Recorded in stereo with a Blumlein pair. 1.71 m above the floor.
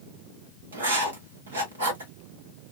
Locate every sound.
0.7 s writing: 65° right, 1.2 m